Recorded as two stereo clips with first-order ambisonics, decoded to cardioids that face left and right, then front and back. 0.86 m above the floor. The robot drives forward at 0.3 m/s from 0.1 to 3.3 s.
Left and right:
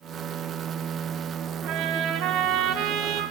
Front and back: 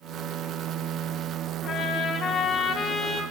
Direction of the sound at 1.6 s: 60° right.